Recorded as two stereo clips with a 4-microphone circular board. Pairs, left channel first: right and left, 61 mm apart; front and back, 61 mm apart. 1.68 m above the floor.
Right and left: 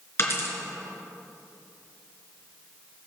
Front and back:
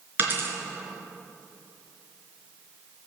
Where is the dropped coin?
130° right, 4 m.